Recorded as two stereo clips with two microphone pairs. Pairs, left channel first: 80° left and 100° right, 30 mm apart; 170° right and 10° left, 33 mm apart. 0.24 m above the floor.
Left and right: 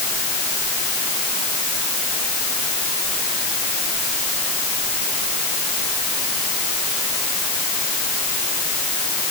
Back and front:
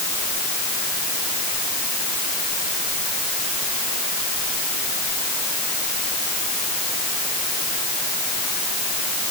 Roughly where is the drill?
I don't hear a drill.